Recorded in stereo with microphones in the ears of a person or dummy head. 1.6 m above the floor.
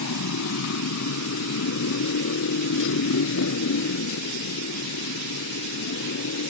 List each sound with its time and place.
0.0 s a motorcycle: 75° left (ahead or behind); by 6.5 s 65° left (ahead or behind)